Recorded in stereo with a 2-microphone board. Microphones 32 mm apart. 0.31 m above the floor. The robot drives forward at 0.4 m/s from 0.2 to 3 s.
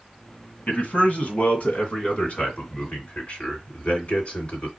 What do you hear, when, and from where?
0.7 s a man speaking: 65° left (ahead or behind), 2 m; by 4.7 s 55° left (ahead or behind), 2.5 m